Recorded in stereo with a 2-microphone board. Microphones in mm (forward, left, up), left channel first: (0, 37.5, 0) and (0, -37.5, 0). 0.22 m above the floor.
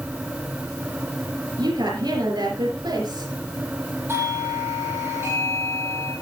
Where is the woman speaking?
65° right (ahead or behind), 4.5 m.